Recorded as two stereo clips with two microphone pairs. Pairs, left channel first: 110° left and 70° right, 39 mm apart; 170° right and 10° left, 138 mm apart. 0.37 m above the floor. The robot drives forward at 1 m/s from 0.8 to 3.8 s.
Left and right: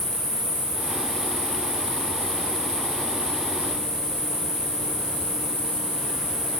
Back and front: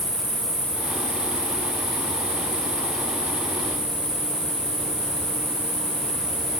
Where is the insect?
115° left, 2.5 m; by 6.6 s 155° left, 4.5 m.